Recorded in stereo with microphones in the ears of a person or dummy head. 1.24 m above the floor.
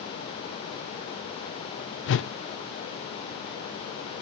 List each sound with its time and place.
2.1 s a whoosh: 55° left (ahead or behind), 0.5 m